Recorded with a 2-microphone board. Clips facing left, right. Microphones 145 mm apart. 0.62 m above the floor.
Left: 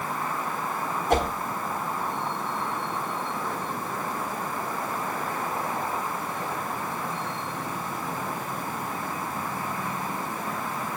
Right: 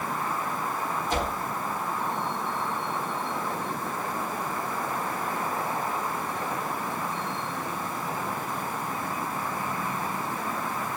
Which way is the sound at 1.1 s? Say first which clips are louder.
Left 7 dB; 60° left (ahead or behind).